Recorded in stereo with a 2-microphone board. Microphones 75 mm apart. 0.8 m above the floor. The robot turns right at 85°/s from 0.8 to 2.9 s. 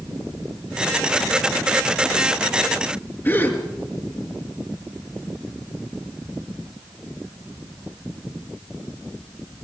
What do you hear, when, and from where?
3.2 s a gasp: 30° left (ahead or behind), 4 m